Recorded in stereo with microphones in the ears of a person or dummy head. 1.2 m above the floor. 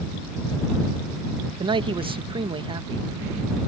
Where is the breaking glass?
No breaking glass in this recording.